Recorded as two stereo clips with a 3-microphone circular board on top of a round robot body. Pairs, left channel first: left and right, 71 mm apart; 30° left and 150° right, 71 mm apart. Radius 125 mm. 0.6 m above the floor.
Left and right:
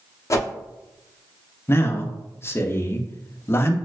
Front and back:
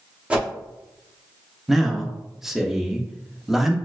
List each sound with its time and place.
0.3 s a whoosh: 135° left, 0.8 m
1.7 s a man speaking: 125° left, 0.7 m